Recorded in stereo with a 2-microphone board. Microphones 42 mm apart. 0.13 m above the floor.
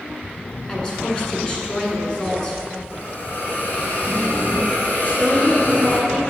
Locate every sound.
0.7 s a woman speaking: 15° left (ahead or behind), 1.2 m
2.9 s a hiss: 45° left (ahead or behind), 1.5 m
5.0 s a woman speaking: 30° left (ahead or behind), 1.6 m